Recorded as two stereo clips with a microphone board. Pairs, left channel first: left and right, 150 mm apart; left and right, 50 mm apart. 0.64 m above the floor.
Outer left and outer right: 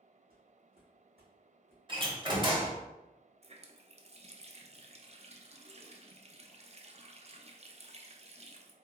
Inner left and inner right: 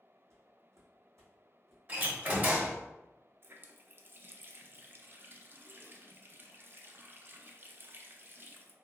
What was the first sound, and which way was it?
Footsteps, 70° right (ahead or behind).